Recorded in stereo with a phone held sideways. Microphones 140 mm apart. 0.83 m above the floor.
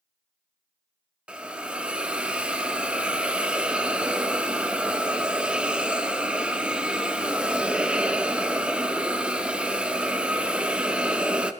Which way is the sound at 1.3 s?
10° right (ahead or behind).